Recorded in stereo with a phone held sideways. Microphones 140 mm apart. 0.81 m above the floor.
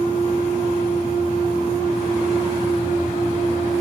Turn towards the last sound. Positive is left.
turn(degrees=90)